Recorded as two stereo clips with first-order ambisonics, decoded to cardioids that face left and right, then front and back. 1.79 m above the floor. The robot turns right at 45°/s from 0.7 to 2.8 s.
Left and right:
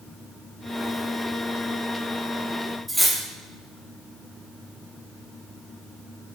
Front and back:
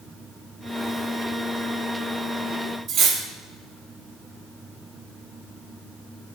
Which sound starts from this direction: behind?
Cutlery clinking, at 2.9 s.